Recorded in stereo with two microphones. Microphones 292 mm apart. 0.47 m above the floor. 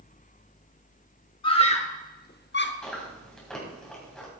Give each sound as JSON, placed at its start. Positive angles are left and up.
{"t": 1.4, "sound": "a scream", "side_deg": 15, "distance_m": 1.1}
{"t": 2.8, "sound": "chewing", "side_deg": 5, "distance_m": 3.0}